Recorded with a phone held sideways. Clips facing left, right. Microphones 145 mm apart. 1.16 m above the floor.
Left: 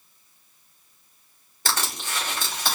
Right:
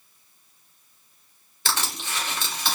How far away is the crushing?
About 2.5 m.